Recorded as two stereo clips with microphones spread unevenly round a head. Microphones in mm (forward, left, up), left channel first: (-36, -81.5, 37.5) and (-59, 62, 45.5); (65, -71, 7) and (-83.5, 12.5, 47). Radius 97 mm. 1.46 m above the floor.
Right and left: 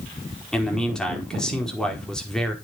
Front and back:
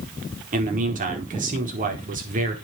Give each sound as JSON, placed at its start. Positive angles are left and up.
{"t": 0.5, "sound": "a man speaking", "azimuth_deg": -165, "distance_m": 4.5}